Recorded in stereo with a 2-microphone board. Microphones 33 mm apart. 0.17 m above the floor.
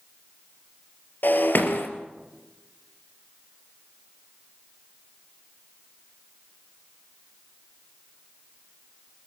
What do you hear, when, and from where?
1.2 s breaking glass: 65° left (ahead or behind), 2.5 m